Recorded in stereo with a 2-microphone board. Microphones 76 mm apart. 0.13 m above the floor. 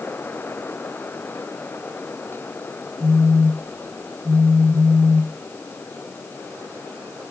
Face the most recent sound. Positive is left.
turn(degrees=15)  # may be behind; listen again after turning